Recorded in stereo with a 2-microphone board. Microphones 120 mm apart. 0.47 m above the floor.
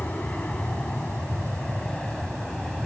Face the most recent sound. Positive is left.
turn(degrees=5)  # may be behind; listen again after turning